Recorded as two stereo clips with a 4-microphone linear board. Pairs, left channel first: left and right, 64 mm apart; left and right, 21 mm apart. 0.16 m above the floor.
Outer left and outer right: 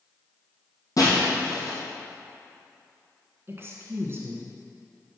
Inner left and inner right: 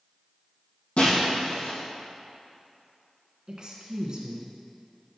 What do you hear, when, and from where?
1.0 s breaking glass: 60° left (ahead or behind), 2.5 m
3.5 s a woman speaking: 40° right (ahead or behind), 1.5 m